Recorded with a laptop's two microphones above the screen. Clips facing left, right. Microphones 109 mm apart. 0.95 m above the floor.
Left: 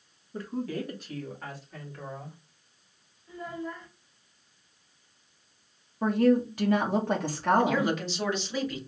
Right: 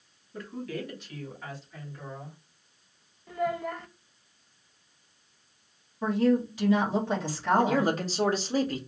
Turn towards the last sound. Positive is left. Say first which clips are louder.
# right 1 dB
turn(degrees=-40)  # may be behind; listen again after turning